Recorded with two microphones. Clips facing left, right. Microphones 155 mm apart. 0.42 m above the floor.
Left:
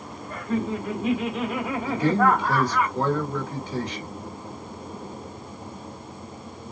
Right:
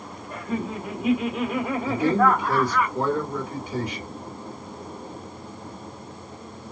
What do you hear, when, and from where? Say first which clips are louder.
0.3 s laughter: left 3 dB; 15° right (ahead or behind), 1.2 m; by 2.9 s 10° left (ahead or behind), 1.4 m
1.9 s a man speaking: even; 10° right (ahead or behind), 1.1 m